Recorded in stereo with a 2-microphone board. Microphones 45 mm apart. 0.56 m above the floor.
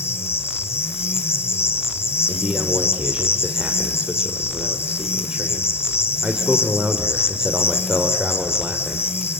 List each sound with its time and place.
0.0 s an insect: 70° left (ahead or behind), 1.9 m
2.3 s a man speaking: 25° right (ahead or behind), 1.8 m